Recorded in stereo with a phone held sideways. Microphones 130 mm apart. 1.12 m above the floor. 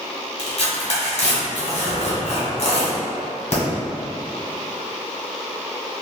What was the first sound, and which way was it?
Tearing paper, 55° left (ahead or behind).